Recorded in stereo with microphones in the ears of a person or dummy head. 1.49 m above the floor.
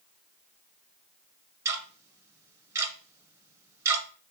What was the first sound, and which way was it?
Ticking, 15° right (ahead or behind).